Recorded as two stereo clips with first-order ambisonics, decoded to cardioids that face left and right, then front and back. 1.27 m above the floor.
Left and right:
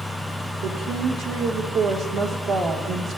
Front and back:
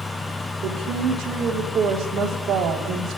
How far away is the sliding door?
No sliding door in this recording.